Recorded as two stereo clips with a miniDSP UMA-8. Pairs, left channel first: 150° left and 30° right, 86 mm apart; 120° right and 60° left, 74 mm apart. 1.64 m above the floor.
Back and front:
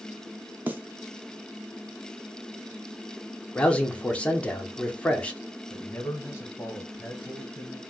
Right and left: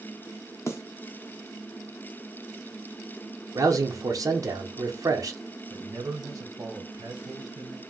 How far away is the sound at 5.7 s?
About 1.0 m.